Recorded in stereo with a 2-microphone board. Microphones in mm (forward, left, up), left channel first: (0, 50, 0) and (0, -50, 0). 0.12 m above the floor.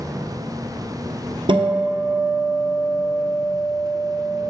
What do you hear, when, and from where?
1.5 s a guitar: 60° right (ahead or behind), 0.7 m